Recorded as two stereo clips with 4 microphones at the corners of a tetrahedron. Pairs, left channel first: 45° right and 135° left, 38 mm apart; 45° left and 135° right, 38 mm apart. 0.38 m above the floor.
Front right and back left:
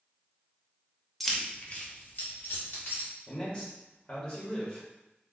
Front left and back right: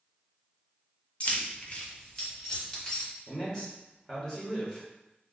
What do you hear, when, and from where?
1.2 s keys jangling: 45° left, 0.6 m; by 3.1 s 30° right, 1.8 m
3.3 s a man speaking: 5° right, 1.1 m